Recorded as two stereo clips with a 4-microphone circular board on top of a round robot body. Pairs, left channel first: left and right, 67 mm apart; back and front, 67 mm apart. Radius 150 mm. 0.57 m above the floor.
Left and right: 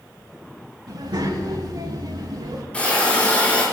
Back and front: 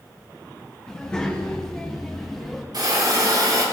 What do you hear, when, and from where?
0.9 s a child speaking: 105° right, 7 m; by 2.6 s 95° right, 6.5 m
2.7 s a hiss: 20° left, 7.5 m